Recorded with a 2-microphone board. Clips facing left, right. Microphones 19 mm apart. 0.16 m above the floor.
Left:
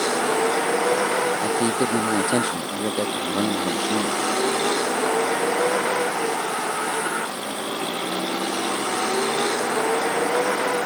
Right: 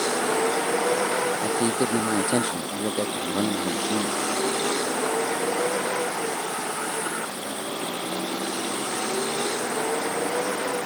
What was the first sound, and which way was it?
A vehicle, 15° left (ahead or behind).